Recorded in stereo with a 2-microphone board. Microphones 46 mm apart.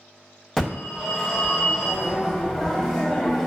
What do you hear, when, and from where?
0.6 s a phone ringing: 15° left (ahead or behind), 1.1 m